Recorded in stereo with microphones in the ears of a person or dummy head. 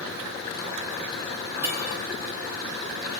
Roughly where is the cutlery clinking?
Centre.